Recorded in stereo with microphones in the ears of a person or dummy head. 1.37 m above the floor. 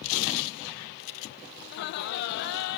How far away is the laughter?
About 0.7 m.